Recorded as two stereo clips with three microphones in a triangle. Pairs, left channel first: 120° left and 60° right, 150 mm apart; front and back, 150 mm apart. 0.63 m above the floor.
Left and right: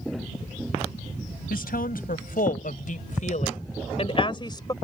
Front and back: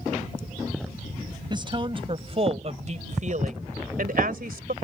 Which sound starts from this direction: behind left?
A woman speaking, at 1.5 s.